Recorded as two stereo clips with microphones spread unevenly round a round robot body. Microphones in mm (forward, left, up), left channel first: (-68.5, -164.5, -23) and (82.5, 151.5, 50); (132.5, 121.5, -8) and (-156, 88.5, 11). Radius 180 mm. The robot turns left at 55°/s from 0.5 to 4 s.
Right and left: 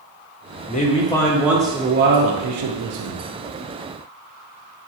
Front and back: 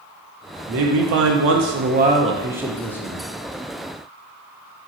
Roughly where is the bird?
No bird in this recording.